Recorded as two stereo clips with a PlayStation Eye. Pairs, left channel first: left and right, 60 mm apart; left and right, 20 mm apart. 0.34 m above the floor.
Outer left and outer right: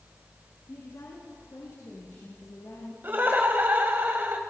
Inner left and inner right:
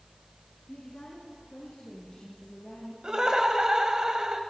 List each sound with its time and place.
0.7 s a woman speaking: 60° left (ahead or behind), 4.5 m; by 2.9 s 50° left (ahead or behind), 7.5 m
3.0 s laughter: 35° right (ahead or behind), 1.7 m